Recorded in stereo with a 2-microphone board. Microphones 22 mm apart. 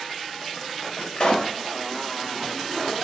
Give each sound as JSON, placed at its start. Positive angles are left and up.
{"t": 1.1, "sound": "a pop", "side_deg": 45, "distance_m": 2.0}